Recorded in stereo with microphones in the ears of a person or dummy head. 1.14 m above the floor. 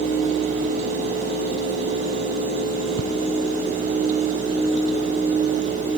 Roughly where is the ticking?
Right.